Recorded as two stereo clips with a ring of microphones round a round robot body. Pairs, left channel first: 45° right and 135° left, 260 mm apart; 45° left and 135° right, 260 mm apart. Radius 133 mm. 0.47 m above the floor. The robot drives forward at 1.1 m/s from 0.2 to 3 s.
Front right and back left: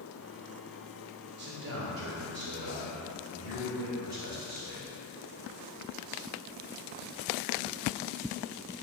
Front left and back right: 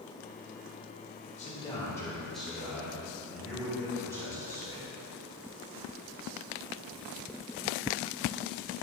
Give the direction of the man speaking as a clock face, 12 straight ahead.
9 o'clock.